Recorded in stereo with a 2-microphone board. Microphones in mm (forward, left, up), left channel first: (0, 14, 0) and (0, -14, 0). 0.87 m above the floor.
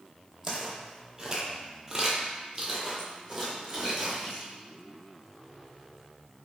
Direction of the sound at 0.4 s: 15° right (ahead or behind).